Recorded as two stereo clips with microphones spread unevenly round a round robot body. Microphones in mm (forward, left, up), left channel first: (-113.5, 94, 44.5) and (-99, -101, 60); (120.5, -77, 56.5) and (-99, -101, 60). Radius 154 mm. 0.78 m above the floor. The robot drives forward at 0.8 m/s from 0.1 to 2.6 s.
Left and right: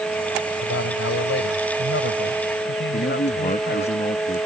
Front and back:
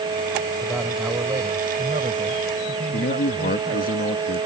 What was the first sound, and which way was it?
A man speaking, 95° left.